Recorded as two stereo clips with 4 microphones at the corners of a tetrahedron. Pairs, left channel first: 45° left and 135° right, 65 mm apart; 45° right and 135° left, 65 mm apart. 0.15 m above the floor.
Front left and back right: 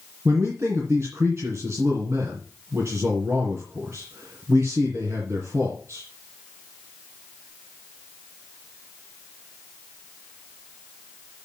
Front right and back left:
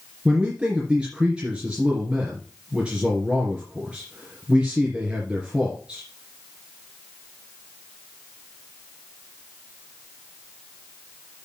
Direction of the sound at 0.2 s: 160° right.